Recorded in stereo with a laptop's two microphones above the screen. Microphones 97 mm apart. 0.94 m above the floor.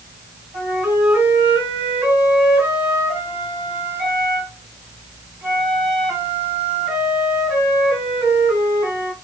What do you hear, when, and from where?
0.5 s a flute: 25° right (ahead or behind), 2.5 m